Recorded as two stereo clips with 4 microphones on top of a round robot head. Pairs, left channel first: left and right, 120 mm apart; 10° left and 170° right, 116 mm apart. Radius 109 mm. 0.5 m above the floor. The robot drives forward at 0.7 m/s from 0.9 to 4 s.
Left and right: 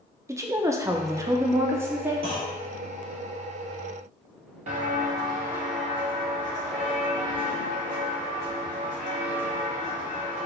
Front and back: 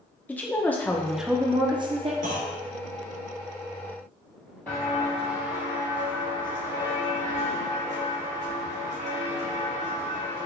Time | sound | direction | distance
0.3 | a woman speaking | 50° right | 0.7 m
2.2 | a clunk | 150° right | 0.8 m
4.7 | footsteps | 70° right | 0.8 m